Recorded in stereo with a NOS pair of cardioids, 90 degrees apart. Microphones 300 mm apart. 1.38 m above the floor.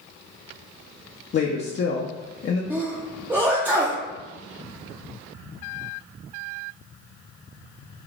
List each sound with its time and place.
1.3 s a woman speaking: 40° left, 0.6 m
2.7 s a sneeze: 5° right, 0.6 m